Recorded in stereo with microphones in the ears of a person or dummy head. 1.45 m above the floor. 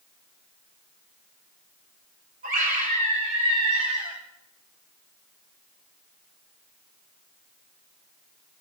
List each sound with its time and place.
2.4 s a scream: 45° right (ahead or behind), 5.5 m; by 4.2 s 30° right (ahead or behind), 5.5 m